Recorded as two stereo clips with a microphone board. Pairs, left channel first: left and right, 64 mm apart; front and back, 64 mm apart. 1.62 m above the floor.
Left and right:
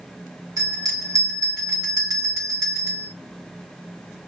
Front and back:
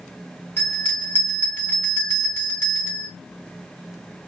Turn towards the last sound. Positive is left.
turn(degrees=-60)